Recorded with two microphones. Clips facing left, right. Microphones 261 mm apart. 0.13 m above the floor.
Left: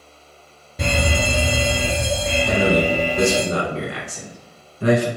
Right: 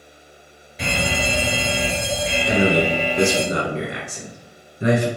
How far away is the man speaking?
About 1.1 m.